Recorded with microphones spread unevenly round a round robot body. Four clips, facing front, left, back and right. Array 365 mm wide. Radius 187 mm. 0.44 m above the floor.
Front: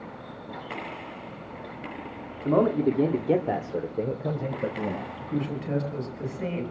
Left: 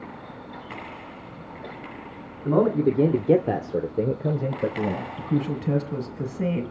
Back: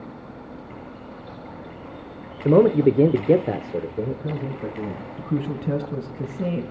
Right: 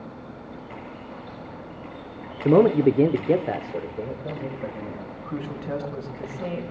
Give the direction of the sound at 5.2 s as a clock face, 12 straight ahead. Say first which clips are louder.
Left 7 dB, back 7 dB; 7 o'clock.